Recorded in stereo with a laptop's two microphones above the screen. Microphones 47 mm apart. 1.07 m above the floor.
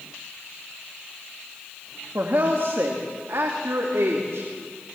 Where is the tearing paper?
I don't hear tearing paper.